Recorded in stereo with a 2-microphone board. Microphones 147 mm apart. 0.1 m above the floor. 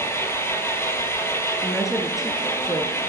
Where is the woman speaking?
Centre (ahead or behind), 1.4 m.